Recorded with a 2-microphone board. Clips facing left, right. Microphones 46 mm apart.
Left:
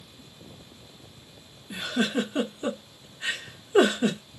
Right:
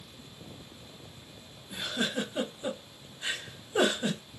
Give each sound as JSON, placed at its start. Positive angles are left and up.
{"t": 1.7, "sound": "a giggle", "side_deg": 65, "distance_m": 1.2}